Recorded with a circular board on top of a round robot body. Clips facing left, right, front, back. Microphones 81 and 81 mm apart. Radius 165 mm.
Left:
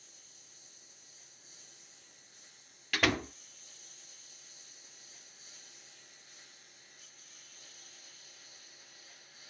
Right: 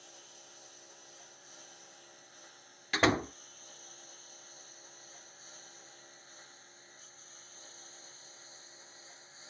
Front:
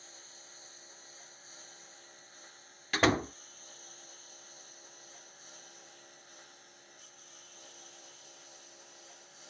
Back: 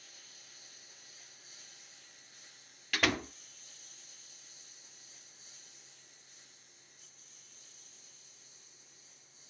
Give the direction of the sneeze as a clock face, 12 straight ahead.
No sneeze in this recording.